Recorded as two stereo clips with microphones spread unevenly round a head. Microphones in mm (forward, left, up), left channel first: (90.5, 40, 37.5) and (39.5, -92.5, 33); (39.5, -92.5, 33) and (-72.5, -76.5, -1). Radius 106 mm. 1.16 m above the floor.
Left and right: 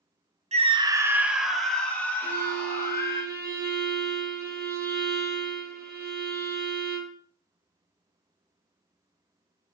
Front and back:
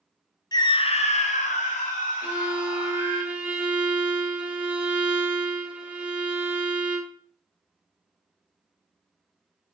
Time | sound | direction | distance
0.5 | a scream | 70° right | 0.9 m
2.2 | a violin | 115° right | 1.3 m